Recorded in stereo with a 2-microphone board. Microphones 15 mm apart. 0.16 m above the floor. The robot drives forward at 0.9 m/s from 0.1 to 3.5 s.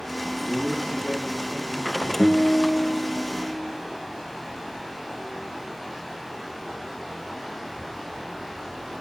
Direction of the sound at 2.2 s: 60° left (ahead or behind).